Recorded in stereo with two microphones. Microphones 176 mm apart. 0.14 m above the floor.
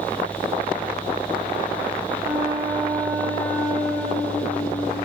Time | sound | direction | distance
2.2 | a flute | 5° right (ahead or behind) | 9 m